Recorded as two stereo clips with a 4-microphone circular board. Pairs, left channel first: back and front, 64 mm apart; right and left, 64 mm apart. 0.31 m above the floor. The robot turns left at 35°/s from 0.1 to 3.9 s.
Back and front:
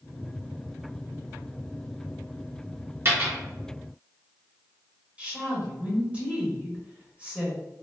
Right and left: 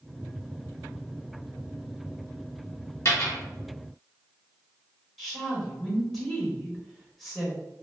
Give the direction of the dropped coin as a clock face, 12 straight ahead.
2 o'clock.